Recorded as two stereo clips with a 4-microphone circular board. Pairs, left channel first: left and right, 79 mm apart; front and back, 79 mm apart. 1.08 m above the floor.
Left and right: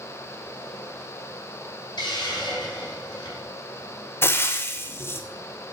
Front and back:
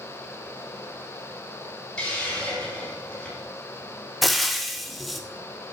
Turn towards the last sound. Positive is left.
turn(degrees=90)